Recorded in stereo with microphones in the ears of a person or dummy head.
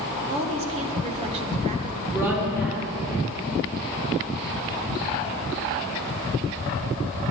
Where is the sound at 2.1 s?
10° right (ahead or behind), 3.5 m.